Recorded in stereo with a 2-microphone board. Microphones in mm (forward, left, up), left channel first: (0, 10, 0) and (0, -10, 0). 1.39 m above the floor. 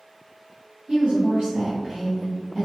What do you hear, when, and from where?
0.9 s a woman speaking: 70° right (ahead or behind), 0.8 m; by 2.7 s 10° left (ahead or behind), 0.6 m